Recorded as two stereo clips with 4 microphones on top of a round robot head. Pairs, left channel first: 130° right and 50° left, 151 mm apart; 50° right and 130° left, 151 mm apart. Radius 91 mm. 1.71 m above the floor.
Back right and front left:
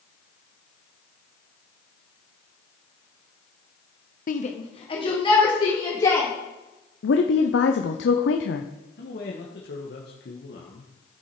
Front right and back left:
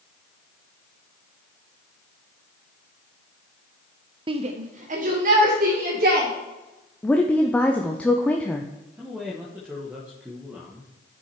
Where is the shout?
170° right, 0.7 m; by 6.3 s 165° left, 3.5 m.